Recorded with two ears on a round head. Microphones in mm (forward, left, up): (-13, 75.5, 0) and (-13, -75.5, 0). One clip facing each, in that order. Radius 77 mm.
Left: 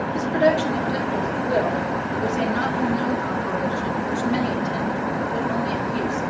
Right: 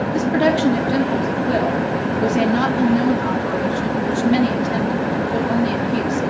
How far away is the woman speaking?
About 2.0 m.